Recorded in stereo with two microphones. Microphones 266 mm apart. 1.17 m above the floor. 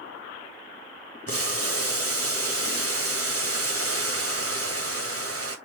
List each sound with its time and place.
1.3 s boiling: 60° right (ahead or behind), 1.7 m